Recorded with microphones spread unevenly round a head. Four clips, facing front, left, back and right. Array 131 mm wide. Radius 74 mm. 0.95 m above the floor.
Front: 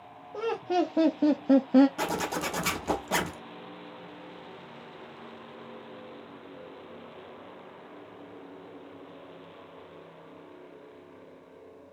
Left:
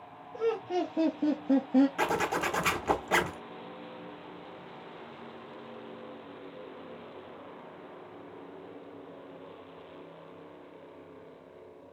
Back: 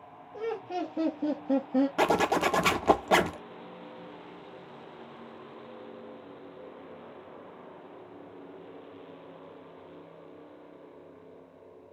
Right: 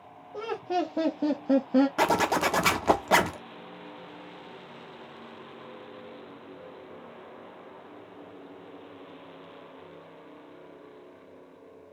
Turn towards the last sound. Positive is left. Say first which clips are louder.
# right 5 dB, back 6 dB
turn(degrees=-145)